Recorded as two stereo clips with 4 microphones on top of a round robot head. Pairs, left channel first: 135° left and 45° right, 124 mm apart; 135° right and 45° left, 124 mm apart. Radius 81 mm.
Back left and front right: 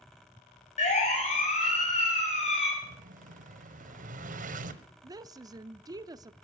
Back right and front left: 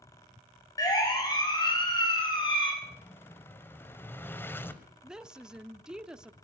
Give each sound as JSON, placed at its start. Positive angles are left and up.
{"t": 0.8, "sound": "a siren", "azimuth_deg": 165, "distance_m": 5.5}
{"t": 2.8, "sound": "an explosion", "azimuth_deg": -60, "distance_m": 1.4}
{"t": 5.0, "sound": "a woman speaking", "azimuth_deg": -35, "distance_m": 0.7}